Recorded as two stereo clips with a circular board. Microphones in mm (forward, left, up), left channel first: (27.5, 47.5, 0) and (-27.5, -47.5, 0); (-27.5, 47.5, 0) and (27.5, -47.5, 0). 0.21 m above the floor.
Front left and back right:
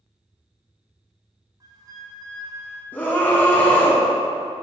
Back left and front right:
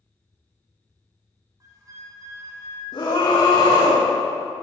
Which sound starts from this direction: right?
A flute, at 1.6 s.